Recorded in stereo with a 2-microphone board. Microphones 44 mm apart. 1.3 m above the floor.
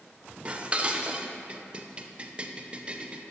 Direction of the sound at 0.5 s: 25° right (ahead or behind).